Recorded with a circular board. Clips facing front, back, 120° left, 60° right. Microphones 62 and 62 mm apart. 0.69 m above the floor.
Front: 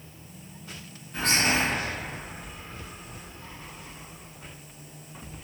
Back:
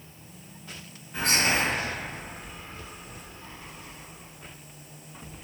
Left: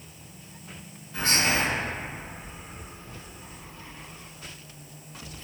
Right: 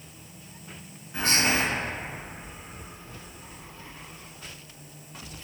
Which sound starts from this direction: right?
Whispering, at 1.1 s.